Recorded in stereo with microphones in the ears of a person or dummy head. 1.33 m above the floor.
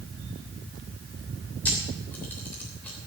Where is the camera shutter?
10° left (ahead or behind), 3 m.